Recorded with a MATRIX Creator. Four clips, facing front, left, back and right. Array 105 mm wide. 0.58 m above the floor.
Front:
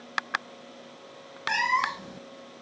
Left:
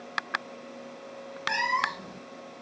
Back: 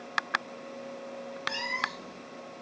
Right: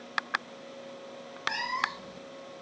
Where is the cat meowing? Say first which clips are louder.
Left 4 dB, front 10 dB; 25° left, 0.6 m.